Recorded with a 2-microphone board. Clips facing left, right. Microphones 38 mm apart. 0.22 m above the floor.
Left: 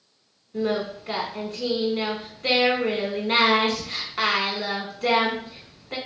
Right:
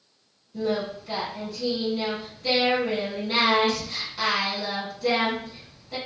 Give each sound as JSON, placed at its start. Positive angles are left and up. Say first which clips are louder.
{"t": 0.5, "sound": "singing", "louder": "left 1 dB", "side_deg": 60, "distance_m": 0.8}